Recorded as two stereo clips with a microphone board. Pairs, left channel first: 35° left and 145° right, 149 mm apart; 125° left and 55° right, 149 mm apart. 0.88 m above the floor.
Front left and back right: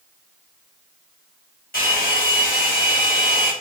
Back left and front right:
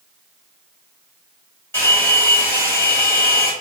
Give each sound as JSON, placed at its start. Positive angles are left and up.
{"t": 1.7, "sound": "a hair dryer", "azimuth_deg": 50, "distance_m": 1.4}